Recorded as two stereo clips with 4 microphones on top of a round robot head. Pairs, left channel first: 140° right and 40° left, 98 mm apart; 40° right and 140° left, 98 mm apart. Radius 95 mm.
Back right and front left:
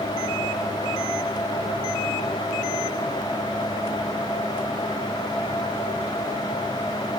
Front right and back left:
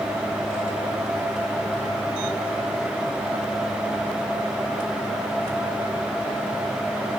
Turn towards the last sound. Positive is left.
No sound to turn to.